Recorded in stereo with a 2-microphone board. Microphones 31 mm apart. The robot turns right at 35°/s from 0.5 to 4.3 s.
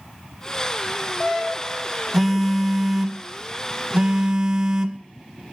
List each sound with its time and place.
2.1 s a phone buzzing: 5° right (ahead or behind), 0.6 m; by 5.0 s 30° right (ahead or behind), 0.6 m